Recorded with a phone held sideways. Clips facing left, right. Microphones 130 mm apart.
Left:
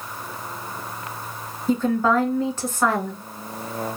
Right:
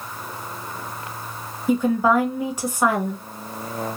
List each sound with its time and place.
1.7 s a woman speaking: 10° right (ahead or behind), 1.2 m